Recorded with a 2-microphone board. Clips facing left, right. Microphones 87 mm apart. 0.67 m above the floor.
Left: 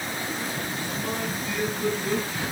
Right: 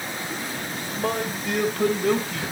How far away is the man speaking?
About 3.5 m.